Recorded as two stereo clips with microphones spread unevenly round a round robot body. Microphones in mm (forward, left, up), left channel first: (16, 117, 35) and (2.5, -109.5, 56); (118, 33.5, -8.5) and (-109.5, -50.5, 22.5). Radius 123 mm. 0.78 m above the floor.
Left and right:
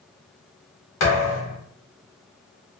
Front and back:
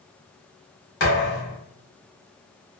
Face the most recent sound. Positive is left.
turn(degrees=70)